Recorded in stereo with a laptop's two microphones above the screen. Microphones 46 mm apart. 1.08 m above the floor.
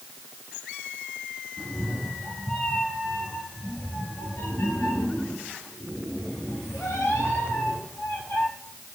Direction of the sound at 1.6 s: 5° left (ahead or behind).